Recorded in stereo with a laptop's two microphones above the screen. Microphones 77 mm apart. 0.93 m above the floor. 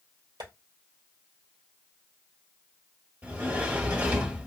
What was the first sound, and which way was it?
Tapping, 75° right (ahead or behind).